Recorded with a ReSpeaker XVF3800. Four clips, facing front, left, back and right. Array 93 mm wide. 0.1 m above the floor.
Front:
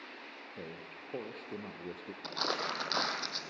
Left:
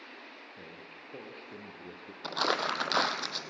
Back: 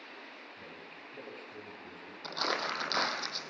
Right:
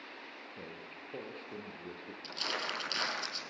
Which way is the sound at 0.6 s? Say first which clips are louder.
Right 1 dB, front 3 dB; 10° right.